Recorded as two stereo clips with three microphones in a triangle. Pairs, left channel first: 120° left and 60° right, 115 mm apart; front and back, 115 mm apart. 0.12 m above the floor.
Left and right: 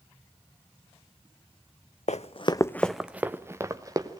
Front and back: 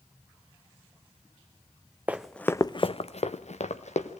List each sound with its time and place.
2.1 s running footsteps: 105° left, 0.6 m; by 4.2 s 5° right, 1.5 m